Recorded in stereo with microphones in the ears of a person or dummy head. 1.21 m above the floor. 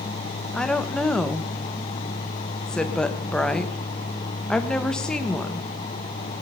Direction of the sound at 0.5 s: Centre (ahead or behind).